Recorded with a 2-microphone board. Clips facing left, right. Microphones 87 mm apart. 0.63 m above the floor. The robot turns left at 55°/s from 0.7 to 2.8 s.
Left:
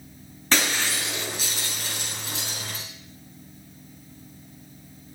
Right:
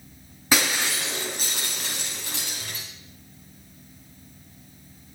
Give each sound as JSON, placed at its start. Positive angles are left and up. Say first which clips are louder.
{"t": 0.5, "sound": "breaking glass", "louder": "right 1 dB", "azimuth_deg": -10, "distance_m": 4.0}